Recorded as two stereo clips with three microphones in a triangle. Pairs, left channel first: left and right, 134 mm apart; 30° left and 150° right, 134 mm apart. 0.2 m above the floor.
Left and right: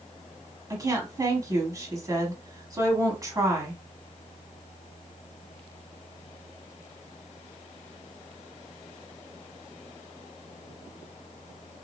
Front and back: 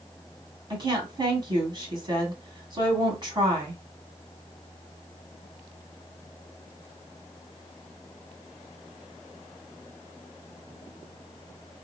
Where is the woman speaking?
135° right, 1.4 m.